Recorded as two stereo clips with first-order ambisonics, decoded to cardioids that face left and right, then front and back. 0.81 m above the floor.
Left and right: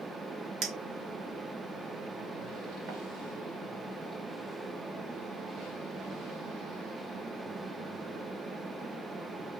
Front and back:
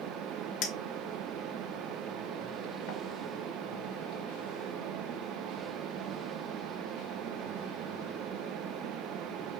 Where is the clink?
40° right, 1.8 m.